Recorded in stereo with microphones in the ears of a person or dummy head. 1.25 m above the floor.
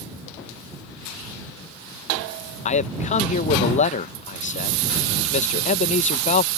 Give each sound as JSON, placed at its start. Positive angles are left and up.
{"t": 2.6, "sound": "a man speaking", "side_deg": 45}